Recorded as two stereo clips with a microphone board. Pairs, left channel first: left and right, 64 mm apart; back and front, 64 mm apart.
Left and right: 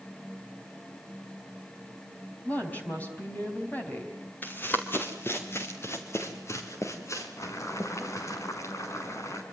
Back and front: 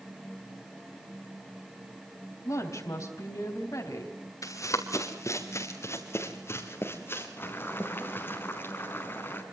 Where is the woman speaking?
150° left, 3.5 m.